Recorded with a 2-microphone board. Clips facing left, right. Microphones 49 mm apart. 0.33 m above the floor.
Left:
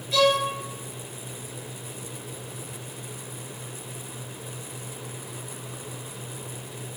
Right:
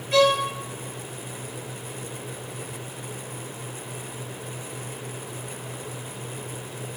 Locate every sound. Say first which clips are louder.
0.1 s a violin: right 2 dB; 40° right (ahead or behind), 2.0 m